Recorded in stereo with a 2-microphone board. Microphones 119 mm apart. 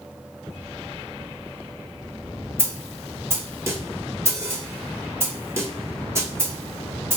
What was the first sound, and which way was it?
A snare drum, 25° right (ahead or behind).